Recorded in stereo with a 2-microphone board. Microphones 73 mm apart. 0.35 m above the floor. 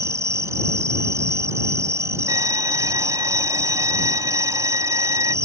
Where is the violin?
65° right (ahead or behind).